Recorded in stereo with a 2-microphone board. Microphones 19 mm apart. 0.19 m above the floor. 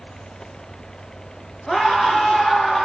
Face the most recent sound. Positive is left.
turn(degrees=30)  # may be behind; listen again after turning